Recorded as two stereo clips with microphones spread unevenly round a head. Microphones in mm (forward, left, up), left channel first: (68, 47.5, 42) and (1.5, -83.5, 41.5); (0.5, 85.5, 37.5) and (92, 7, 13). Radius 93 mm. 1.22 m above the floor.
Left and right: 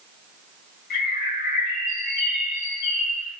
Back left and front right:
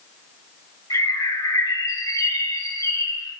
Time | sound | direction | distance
0.9 | a bird | 80° left | 5 m